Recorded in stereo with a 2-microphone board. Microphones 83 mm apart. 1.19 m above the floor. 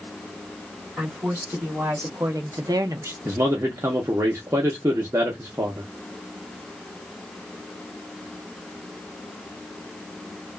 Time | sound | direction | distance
1.0 | a woman speaking | 25° right (ahead or behind) | 2 m
3.2 | a man speaking | 35° right (ahead or behind) | 0.7 m